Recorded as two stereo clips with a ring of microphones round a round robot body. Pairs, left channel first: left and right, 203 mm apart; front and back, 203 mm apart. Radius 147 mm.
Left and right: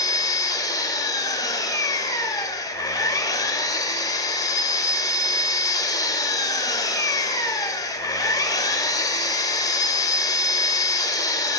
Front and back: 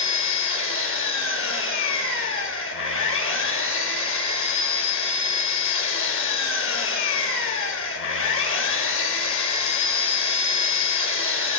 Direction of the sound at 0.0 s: 15° left.